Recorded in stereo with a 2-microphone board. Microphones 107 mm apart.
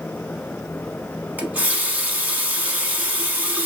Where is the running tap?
15° right (ahead or behind), 0.7 m.